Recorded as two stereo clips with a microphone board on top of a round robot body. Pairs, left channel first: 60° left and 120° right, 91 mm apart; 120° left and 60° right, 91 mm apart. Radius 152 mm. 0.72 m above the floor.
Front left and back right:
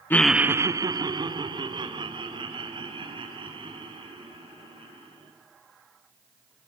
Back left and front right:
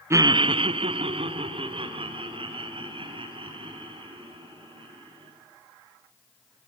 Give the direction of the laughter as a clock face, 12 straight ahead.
12 o'clock.